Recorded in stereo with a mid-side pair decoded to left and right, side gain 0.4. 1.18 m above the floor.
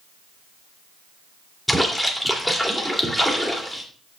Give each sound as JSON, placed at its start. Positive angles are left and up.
{"t": 1.7, "sound": "a splash", "azimuth_deg": 5, "distance_m": 2.5}